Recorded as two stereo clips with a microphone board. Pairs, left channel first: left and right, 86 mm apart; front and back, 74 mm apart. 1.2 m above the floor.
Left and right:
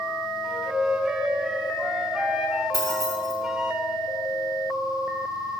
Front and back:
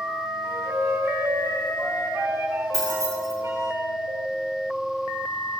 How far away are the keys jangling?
About 1.8 m.